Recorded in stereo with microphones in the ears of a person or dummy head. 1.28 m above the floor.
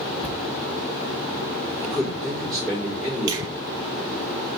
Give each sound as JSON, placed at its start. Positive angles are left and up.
{"t": 0.2, "sound": "a thud", "side_deg": 5, "distance_m": 1.9}
{"t": 1.8, "sound": "a man speaking", "side_deg": 5, "distance_m": 2.5}
{"t": 3.3, "sound": "a finger snap", "side_deg": -20, "distance_m": 1.6}